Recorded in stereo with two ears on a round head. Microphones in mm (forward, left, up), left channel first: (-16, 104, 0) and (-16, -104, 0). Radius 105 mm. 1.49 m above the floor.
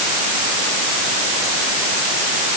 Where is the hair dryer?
No hair dryer in this recording.